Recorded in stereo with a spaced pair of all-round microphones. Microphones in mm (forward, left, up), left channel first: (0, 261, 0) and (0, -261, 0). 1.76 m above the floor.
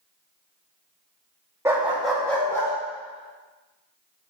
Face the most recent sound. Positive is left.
turn(degrees=5)  # may be behind; listen again after turning